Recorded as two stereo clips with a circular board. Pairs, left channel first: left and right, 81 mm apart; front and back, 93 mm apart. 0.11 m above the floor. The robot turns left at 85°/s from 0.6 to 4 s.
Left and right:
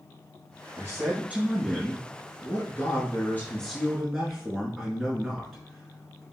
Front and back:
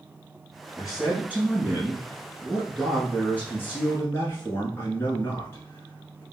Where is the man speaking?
85° right, 1.2 m; by 6.2 s 5° right, 1.2 m.